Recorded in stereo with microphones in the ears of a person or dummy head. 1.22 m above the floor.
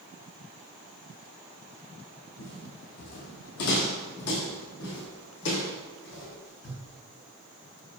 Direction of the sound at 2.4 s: 60° left (ahead or behind).